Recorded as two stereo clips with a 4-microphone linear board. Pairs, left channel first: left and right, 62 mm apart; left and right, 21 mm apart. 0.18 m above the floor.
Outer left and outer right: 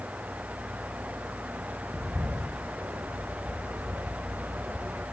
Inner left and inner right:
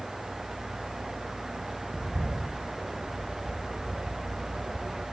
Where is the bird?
50° right (ahead or behind), 3 m.